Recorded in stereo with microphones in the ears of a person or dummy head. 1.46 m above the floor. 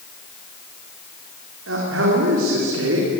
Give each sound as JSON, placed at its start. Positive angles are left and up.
{"t": 1.7, "sound": "a man speaking", "side_deg": -90, "distance_m": 4.0}